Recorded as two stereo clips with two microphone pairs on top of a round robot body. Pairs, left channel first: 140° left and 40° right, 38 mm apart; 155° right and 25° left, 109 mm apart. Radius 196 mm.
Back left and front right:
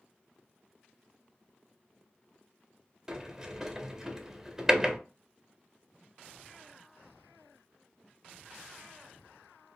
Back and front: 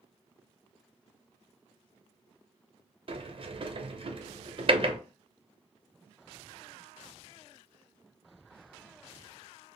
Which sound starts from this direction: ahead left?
A sliding door, at 3.1 s.